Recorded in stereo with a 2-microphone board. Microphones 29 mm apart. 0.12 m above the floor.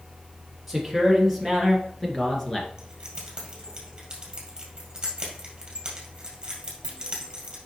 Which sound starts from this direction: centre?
A man speaking, at 0.7 s.